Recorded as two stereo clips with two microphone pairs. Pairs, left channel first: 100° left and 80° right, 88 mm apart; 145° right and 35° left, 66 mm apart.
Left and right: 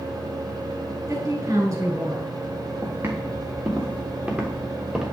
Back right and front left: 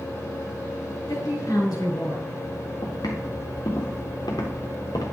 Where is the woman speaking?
125° right, 5 m.